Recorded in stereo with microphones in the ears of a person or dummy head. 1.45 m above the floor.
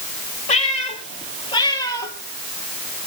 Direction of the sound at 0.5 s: 35° left (ahead or behind).